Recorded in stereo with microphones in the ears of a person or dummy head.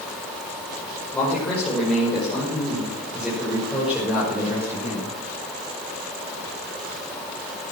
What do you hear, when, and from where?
1.1 s a man speaking: 15° left (ahead or behind), 6.5 m; by 5.1 s 5° right (ahead or behind), 7 m